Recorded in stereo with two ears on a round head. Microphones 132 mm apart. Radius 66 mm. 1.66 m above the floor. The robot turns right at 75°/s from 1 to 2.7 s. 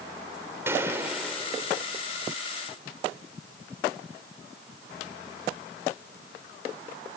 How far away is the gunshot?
About 3 m.